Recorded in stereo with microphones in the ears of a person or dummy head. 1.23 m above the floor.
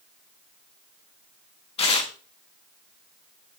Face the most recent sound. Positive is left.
turn(degrees=30)  # may be behind; listen again after turning